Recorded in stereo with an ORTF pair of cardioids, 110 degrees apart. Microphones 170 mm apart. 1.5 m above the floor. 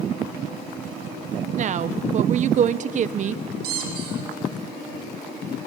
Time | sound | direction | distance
1.6 | a woman speaking | 45° right | 0.9 m
3.6 | a squeak | 65° right | 5.5 m